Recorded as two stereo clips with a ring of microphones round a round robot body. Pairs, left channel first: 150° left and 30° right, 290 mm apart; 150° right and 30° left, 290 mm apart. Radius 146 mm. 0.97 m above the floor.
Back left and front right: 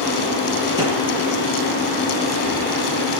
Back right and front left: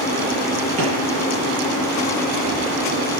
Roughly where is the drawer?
Ahead left.